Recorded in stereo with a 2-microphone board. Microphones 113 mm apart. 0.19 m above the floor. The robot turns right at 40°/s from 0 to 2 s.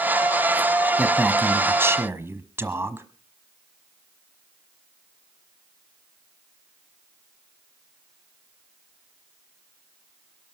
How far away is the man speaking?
About 1.1 m.